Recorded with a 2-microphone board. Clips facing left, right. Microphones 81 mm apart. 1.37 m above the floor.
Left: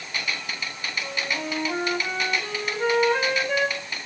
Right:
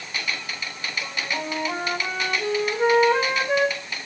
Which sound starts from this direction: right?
A flute, at 1.0 s.